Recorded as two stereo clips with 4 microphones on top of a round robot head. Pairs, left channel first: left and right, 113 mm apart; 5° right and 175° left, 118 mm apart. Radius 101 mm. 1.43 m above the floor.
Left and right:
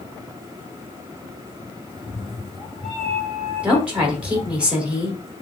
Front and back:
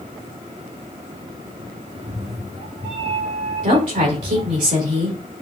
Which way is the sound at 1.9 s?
Straight behind.